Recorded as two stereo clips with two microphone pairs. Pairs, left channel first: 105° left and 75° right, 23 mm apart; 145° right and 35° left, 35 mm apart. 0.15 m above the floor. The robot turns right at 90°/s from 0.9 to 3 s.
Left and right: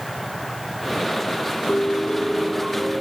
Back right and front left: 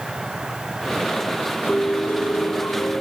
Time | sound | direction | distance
1.7 | a piano | 150° left | ?